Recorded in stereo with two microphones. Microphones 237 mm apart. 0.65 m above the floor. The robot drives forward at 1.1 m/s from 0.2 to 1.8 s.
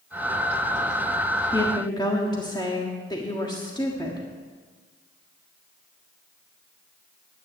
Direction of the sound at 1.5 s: 20° left (ahead or behind).